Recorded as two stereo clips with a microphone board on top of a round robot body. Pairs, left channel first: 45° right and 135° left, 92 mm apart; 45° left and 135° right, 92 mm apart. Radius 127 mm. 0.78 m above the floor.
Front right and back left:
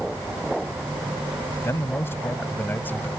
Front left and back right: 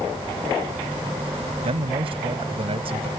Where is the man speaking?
110° right; by 3.1 s 115° right.